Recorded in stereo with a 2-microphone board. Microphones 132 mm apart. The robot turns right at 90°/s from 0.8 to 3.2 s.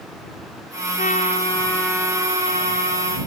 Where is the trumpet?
95° left; by 3.2 s 65° right.